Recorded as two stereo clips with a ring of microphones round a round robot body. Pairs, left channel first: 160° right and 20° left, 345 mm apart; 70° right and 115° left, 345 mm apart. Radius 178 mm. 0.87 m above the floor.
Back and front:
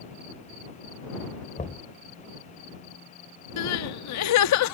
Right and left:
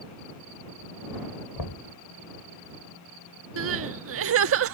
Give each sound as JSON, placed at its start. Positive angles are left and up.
{"t": 1.6, "sound": "knocking", "azimuth_deg": -90}
{"t": 3.6, "sound": "crying", "azimuth_deg": 165}